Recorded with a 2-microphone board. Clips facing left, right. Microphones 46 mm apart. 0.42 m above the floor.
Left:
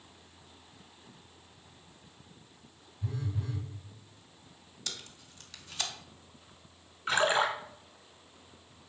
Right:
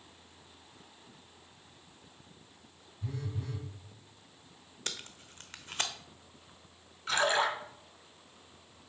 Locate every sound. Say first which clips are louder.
3.0 s a phone buzzing: left 2 dB; centre (ahead or behind), 3 m
4.9 s tape being pulled: right 2 dB; 45° right (ahead or behind), 0.8 m
7.1 s a splash: left 1 dB; 20° left (ahead or behind), 1.7 m